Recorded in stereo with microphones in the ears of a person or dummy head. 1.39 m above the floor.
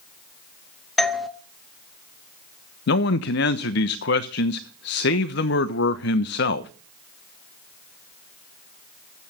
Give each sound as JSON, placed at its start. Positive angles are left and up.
{"t": 1.0, "sound": "a doorbell", "side_deg": 0, "distance_m": 0.6}
{"t": 2.9, "sound": "a man speaking", "side_deg": 60, "distance_m": 0.9}